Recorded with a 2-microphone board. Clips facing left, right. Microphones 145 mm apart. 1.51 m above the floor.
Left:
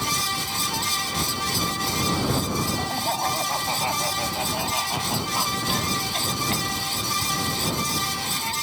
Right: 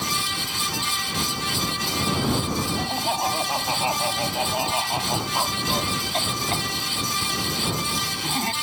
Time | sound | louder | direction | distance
2.8 | laughter | right 1 dB | 5° right (ahead or behind) | ?